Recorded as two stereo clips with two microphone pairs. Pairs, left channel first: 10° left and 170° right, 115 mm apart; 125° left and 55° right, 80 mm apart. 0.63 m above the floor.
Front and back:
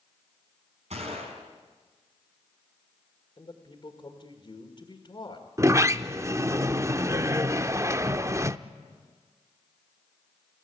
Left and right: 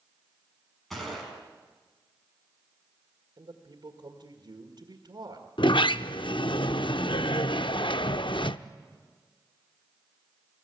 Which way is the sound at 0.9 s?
150° right.